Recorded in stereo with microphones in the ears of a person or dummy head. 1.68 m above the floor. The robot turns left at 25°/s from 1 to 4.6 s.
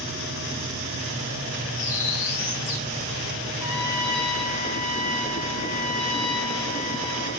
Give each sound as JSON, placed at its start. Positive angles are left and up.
{"t": 1.7, "sound": "a bird", "side_deg": 40, "distance_m": 1.1}
{"t": 3.6, "sound": "a trumpet", "side_deg": 65, "distance_m": 3.0}